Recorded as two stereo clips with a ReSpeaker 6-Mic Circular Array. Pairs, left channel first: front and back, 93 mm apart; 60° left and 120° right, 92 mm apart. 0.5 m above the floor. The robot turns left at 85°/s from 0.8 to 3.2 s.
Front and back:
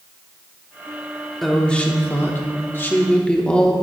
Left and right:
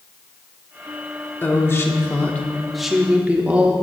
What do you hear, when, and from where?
1.4 s a woman speaking: 85° left, 1.0 m; by 3.7 s 65° right, 1.0 m